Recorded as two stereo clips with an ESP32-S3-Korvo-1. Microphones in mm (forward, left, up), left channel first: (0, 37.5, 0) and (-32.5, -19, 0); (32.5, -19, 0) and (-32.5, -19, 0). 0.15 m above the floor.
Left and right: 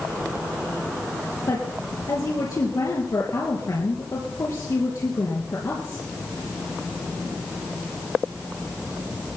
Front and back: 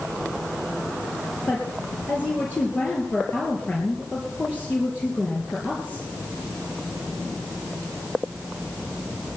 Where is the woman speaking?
60° left, 3 m.